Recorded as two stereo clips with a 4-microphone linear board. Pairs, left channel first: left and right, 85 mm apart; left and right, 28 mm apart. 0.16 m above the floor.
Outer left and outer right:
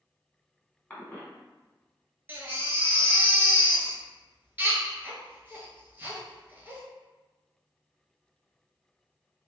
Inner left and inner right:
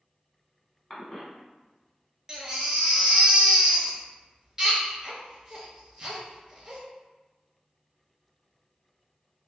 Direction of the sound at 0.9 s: 15° left (ahead or behind).